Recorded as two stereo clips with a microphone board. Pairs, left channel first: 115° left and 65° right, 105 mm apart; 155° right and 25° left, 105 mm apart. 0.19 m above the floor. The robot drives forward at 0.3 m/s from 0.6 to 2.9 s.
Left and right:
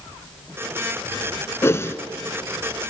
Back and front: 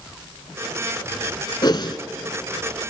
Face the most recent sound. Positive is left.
turn(degrees=175)